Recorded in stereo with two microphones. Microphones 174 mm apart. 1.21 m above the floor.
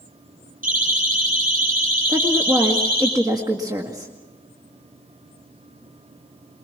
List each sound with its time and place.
0.6 s a siren: 55° right (ahead or behind), 9.5 m; by 3.1 s 60° right (ahead or behind), 11 m
2.1 s a woman speaking: 20° right (ahead or behind), 2.0 m